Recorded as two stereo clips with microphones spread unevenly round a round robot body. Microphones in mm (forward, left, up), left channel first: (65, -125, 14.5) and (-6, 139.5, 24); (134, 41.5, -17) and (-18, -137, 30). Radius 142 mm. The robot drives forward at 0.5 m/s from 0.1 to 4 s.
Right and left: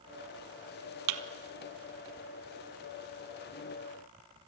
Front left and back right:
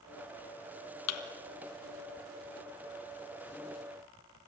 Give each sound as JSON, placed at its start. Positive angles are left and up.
{"t": 1.1, "sound": "a thud", "azimuth_deg": 90, "distance_m": 1.4}